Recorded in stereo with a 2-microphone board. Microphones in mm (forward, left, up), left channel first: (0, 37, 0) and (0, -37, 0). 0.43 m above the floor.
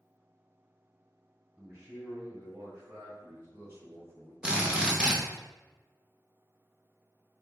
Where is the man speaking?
30° right (ahead or behind), 1.9 m.